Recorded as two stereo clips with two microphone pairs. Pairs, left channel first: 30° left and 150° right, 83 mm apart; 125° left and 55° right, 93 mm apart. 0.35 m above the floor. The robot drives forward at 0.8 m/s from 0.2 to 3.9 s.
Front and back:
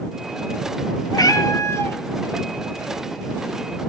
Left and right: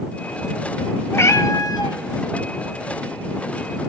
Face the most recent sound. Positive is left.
turn(degrees=145)